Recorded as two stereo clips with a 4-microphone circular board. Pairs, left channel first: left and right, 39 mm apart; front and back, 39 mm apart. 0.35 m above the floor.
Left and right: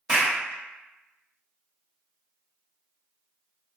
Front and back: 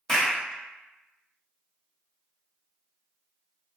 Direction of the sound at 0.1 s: 70° right.